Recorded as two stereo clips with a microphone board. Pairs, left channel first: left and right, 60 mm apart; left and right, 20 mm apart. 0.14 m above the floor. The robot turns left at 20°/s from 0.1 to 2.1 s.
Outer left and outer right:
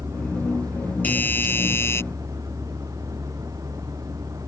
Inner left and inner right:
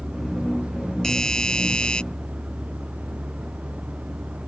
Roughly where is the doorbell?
Left.